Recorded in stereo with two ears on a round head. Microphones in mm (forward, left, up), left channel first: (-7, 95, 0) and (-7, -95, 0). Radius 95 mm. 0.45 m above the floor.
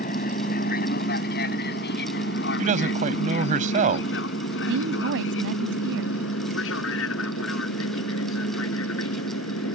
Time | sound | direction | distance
0.0 | an aircraft | 45° left (ahead or behind) | ?
2.6 | a man speaking | 40° right (ahead or behind) | ?
4.7 | a woman speaking | 65° right (ahead or behind) | ?